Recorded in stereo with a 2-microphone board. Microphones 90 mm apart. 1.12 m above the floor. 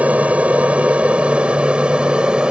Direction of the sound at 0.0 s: 15° right (ahead or behind).